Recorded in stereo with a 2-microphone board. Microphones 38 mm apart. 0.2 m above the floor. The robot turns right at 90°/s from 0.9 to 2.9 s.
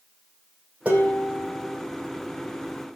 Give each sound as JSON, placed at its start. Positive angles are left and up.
{"t": 0.8, "sound": "dishes clattering", "azimuth_deg": -35, "distance_m": 6.0}